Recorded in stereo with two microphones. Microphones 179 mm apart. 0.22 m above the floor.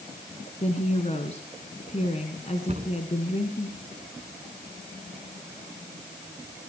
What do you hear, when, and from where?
0.6 s a woman speaking: 40° left (ahead or behind), 1.9 m
2.7 s a cupboard door: 40° right (ahead or behind), 2.5 m